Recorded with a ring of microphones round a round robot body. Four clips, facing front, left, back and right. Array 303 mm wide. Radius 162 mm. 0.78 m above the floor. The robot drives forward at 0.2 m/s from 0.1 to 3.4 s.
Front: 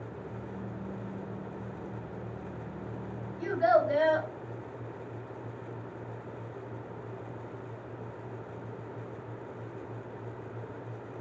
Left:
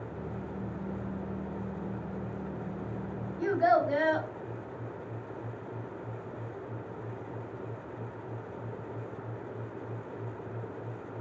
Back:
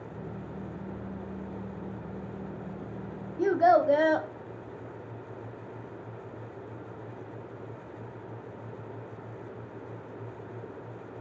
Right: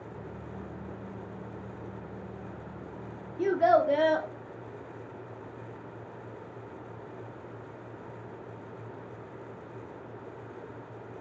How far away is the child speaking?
About 0.7 m.